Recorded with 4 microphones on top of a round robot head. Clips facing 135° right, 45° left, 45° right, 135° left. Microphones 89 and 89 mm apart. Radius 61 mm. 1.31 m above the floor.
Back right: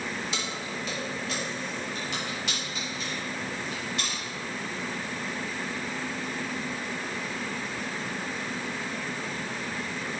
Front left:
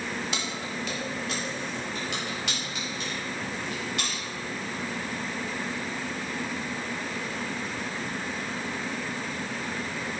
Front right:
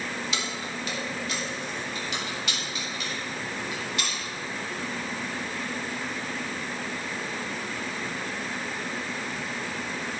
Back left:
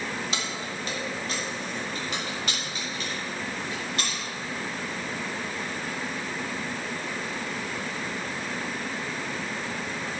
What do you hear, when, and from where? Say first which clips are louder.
0.3 s keys jangling: front left 1 dB, even; 75° left, 1.9 m; by 4.2 s 85° left, 5.5 m